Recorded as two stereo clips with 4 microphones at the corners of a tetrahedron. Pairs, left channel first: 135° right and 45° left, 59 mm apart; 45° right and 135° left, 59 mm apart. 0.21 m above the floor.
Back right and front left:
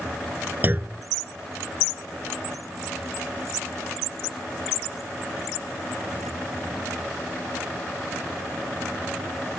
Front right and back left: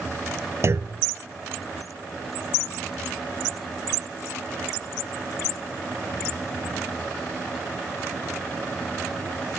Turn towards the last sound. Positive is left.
turn(degrees=100)